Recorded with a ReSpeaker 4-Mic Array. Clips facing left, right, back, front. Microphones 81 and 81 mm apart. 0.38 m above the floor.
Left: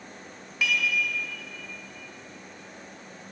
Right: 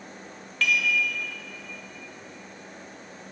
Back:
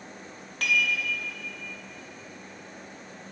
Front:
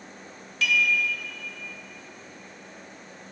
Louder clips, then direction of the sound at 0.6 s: Right 2 dB, front 2 dB; 165° left.